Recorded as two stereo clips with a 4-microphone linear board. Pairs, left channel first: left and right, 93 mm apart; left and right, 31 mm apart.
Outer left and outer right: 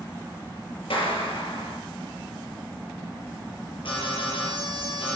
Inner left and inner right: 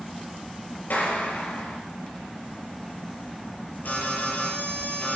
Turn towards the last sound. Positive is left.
turn(degrees=70)  # may be behind; listen again after turning